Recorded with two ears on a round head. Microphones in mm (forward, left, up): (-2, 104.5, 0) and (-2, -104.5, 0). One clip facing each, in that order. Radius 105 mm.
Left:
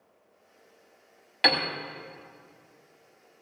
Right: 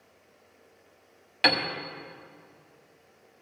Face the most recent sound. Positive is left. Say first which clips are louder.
# right 1 dB
turn(degrees=-5)  # may be behind; listen again after turning